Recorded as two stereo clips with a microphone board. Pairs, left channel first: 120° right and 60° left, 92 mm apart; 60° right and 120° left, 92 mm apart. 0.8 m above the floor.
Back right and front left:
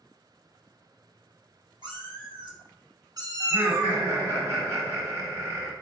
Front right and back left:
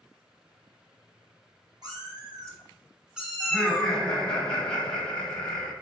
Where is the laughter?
15° left, 1.3 m.